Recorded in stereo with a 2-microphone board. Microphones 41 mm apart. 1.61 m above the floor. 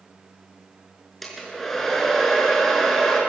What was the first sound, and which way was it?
A hair dryer, 5° left (ahead or behind).